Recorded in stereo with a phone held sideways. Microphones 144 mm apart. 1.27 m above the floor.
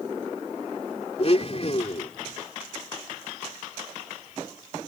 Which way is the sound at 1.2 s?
45° left (ahead or behind).